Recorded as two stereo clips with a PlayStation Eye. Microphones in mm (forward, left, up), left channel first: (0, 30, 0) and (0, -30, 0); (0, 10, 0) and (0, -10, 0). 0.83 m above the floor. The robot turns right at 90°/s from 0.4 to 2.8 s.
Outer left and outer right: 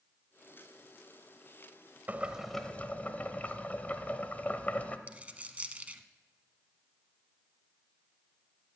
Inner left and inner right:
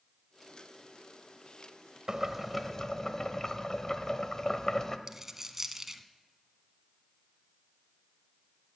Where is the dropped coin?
25° right (ahead or behind), 0.8 m.